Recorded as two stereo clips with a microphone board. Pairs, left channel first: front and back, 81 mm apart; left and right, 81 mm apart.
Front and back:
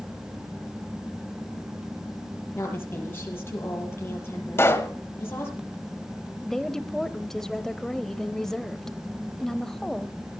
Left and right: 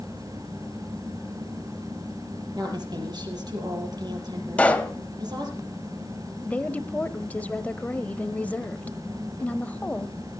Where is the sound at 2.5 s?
60° right, 6 m.